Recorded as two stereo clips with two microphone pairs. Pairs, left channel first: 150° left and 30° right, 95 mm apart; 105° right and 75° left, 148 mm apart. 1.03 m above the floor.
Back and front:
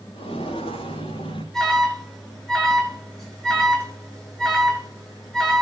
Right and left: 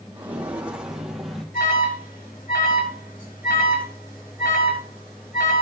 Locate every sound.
0.1 s footsteps: 150° left, 6 m; by 1.4 s 165° left, 5 m
1.5 s an alarm: 125° right, 8 m